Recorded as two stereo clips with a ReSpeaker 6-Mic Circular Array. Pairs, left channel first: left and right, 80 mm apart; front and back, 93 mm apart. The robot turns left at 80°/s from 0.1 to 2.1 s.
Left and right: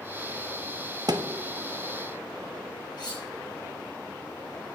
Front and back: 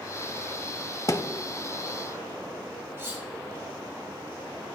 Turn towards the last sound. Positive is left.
turn(degrees=115)